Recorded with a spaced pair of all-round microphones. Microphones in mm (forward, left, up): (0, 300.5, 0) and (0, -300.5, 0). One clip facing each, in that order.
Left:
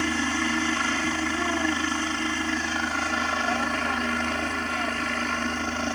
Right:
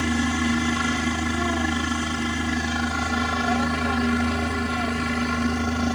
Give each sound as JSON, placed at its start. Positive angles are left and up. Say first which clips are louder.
{"t": 0.0, "sound": "a helicopter", "louder": "right 4 dB", "side_deg": -60}